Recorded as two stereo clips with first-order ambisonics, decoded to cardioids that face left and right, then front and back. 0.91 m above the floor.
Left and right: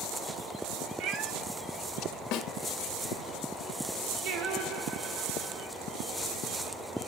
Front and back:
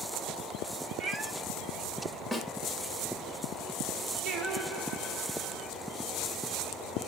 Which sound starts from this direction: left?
A snare drum, at 2.3 s.